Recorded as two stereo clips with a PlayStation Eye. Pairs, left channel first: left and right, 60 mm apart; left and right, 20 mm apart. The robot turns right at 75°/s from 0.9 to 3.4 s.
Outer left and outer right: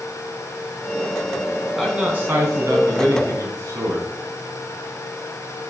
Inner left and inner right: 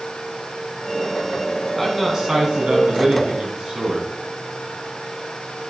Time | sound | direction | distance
1.8 | a man speaking | straight behind | 3.5 m